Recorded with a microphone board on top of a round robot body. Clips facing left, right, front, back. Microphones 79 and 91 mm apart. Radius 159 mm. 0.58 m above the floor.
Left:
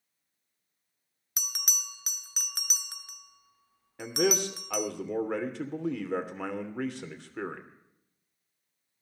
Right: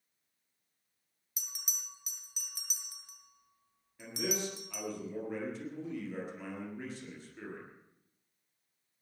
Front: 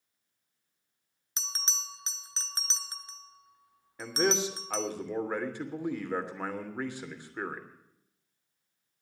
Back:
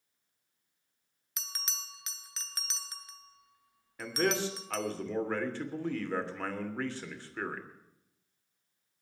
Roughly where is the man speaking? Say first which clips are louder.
Left 9 dB, front 2 dB; left.